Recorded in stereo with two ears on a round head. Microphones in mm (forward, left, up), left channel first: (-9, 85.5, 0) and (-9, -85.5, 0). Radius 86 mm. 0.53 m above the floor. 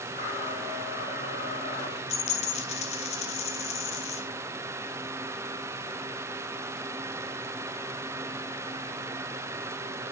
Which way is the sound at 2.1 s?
35° left (ahead or behind).